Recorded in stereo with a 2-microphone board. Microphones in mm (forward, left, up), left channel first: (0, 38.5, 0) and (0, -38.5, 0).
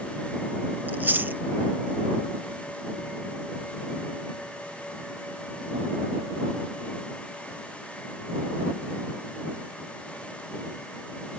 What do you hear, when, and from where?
0.9 s chewing: 25° right (ahead or behind)